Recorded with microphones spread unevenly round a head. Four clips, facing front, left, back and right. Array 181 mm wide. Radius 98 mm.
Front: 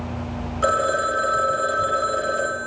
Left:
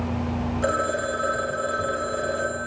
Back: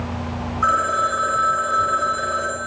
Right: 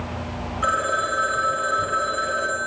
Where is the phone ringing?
35° left, 5 m.